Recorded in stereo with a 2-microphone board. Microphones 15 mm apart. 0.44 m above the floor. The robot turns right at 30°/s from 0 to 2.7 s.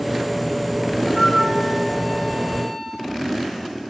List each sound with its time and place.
1.1 s a flute: 40° right, 1.7 m; by 3.1 s 10° left, 1.7 m